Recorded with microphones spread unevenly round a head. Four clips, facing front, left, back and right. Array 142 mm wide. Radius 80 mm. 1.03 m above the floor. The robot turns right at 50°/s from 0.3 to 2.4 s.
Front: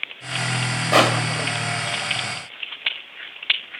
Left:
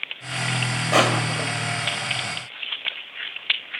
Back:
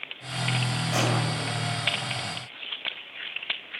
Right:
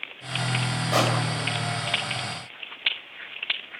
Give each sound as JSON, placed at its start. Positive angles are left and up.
{"t": 0.9, "sound": "crushing", "azimuth_deg": 15, "distance_m": 2.5}